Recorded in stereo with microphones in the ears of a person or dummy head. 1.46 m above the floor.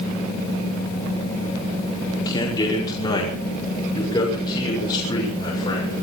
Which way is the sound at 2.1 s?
20° left (ahead or behind).